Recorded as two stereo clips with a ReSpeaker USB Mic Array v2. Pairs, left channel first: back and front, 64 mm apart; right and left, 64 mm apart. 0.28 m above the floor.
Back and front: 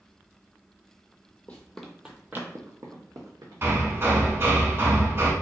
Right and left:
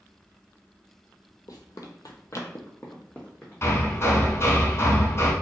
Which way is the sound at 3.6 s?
45° right.